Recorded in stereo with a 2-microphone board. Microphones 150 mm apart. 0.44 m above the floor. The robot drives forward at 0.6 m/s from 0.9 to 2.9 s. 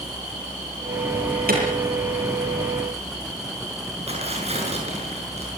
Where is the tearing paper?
45° right (ahead or behind), 7 m.